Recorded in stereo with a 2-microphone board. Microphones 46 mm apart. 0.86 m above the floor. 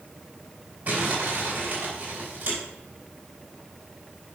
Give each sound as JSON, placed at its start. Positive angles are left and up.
{"t": 0.9, "sound": "crumpling", "side_deg": -40, "distance_m": 4.0}